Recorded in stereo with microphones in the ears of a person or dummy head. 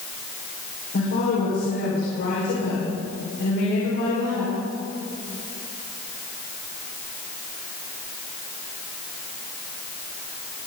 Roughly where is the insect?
I don't hear an insect.